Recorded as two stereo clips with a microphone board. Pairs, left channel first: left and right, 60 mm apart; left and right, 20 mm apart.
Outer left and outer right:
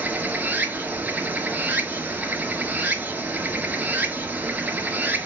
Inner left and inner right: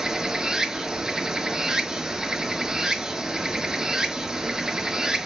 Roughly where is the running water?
Right.